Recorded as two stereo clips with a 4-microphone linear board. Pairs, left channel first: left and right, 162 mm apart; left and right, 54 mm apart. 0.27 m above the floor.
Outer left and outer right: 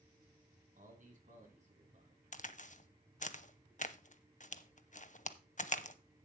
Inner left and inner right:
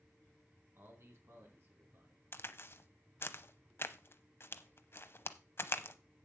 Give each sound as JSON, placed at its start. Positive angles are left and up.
{"t": 0.8, "sound": "a man speaking", "side_deg": -55, "distance_m": 3.5}
{"t": 2.3, "sound": "a crack", "side_deg": 50, "distance_m": 0.7}